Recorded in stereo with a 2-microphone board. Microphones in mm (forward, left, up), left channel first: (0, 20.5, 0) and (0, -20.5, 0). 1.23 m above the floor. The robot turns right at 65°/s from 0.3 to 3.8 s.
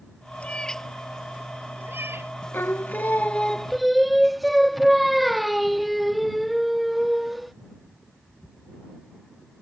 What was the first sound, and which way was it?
A cat meowing, 35° left (ahead or behind).